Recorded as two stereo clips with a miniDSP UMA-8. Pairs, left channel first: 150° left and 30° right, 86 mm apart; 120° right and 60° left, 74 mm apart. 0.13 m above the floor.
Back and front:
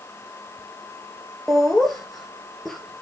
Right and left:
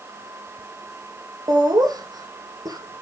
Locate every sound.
1.5 s laughter: 60° left, 2 m